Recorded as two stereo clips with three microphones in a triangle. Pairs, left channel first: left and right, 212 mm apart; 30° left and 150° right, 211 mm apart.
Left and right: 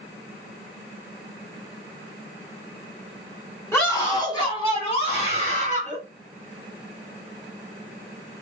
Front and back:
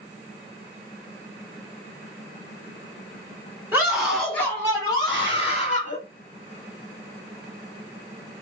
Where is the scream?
145° left, 1.7 m; by 6.0 s 60° left, 2 m.